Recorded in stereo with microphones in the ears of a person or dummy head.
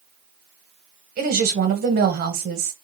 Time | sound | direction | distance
1.2 | a woman speaking | 55° right (ahead or behind) | 0.9 m